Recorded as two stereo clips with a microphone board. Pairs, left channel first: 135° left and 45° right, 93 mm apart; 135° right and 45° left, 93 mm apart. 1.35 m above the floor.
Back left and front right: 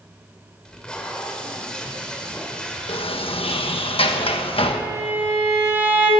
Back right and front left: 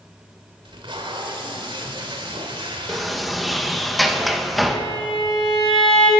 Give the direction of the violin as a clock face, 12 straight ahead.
4 o'clock.